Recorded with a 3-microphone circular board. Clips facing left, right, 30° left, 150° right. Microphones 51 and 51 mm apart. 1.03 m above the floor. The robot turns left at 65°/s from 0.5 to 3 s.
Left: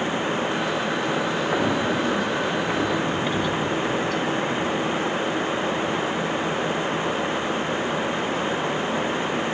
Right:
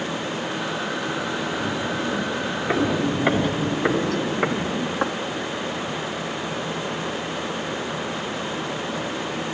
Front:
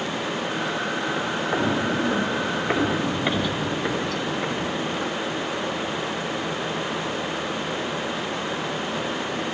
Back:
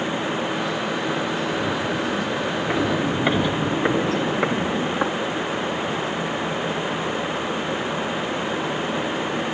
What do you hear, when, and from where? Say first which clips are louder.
1.5 s footsteps: left 4 dB, front 1 dB; 70° left, 1.5 m; by 5.1 s 125° right, 1.9 m